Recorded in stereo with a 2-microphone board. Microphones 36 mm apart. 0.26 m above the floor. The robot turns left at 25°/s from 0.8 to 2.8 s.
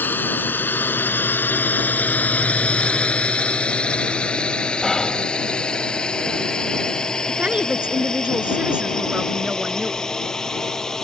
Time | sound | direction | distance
0.0 | a drone | 65° left (ahead or behind) | ?
4.8 | whispering | 15° left (ahead or behind) | ?
7.3 | a woman speaking | 30° right (ahead or behind) | ?